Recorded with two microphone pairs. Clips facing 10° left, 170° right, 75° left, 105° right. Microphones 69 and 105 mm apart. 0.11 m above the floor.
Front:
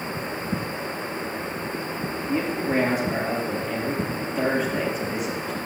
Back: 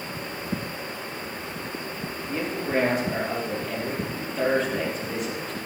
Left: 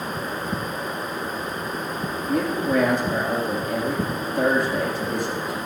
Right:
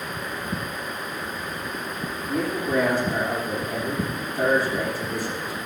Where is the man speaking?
95° left, 4 m.